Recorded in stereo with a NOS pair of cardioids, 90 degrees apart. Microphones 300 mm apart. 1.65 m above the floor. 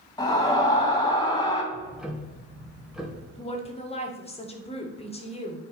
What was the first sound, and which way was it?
A scream, 10° left.